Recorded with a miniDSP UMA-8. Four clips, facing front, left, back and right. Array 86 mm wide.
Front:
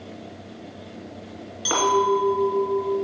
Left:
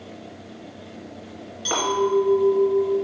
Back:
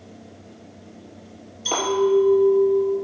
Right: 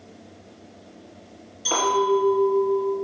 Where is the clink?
20° left, 2.5 m.